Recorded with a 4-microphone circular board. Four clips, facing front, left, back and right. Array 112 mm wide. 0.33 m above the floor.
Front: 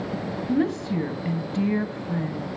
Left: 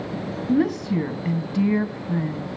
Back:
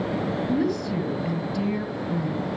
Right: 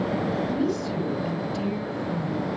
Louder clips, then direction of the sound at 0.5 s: Left 5 dB, front 3 dB; 60° left.